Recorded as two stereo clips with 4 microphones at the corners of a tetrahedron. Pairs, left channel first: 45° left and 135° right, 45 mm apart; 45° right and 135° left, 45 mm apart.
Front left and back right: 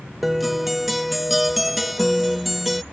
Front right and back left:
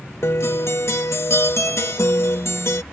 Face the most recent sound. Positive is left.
turn(degrees=-45)